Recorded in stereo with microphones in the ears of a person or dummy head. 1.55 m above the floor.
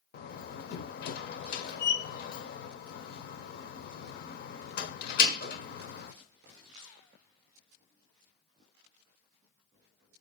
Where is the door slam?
45° left (ahead or behind), 0.7 m.